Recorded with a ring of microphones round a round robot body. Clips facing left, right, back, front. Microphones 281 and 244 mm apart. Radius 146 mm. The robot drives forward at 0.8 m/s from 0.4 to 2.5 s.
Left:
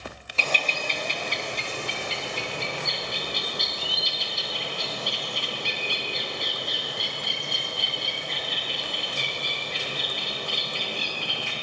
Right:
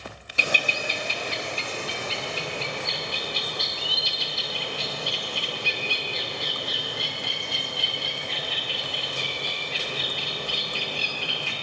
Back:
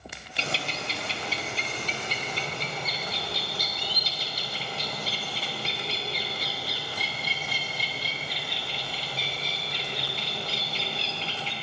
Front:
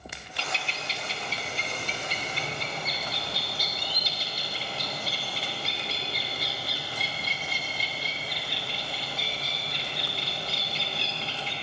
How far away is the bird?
About 0.5 m.